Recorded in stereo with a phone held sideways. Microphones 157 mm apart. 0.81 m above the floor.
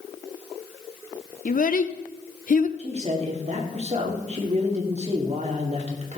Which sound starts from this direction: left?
A child speaking, at 1.4 s.